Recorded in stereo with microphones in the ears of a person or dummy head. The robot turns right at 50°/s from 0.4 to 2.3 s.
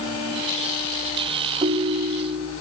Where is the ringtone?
25° right, 2 m; by 2.5 s 5° left, 2 m.